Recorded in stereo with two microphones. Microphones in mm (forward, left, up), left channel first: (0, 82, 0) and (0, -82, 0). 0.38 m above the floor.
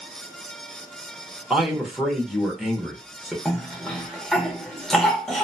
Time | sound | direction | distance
1.5 | a man speaking | centre (ahead or behind) | 0.8 m
3.5 | a cough | centre (ahead or behind) | 0.9 m